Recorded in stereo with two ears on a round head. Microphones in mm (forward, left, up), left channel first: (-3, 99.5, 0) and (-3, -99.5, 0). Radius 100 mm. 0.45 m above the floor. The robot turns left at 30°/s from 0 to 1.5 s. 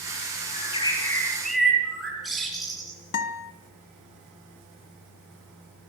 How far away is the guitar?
About 1.6 m.